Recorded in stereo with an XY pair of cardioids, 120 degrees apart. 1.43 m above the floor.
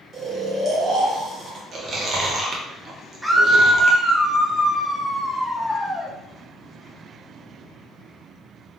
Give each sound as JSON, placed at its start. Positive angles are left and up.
{"t": 0.1, "sound": "snoring", "azimuth_deg": -40, "distance_m": 1.4}
{"t": 1.7, "sound": "chewing", "azimuth_deg": -40, "distance_m": 1.0}
{"t": 3.2, "sound": "a scream", "azimuth_deg": -5, "distance_m": 0.8}